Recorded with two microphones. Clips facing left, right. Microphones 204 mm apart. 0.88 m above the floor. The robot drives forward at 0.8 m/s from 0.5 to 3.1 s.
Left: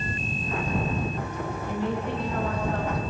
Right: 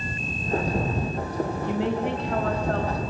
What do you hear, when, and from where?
1.6 s a woman speaking: 80° right, 6 m